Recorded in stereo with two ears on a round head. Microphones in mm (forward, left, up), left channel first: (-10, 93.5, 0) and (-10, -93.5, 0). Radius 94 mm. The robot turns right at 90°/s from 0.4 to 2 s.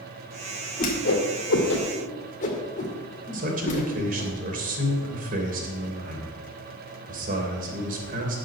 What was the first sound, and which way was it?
A whoosh, 30° left (ahead or behind).